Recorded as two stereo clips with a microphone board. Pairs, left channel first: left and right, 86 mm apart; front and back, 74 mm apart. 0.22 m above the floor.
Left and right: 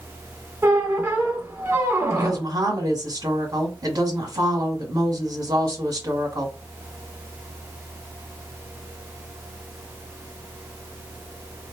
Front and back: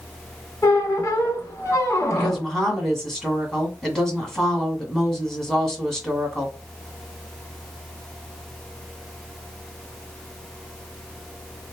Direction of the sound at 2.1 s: 85° right.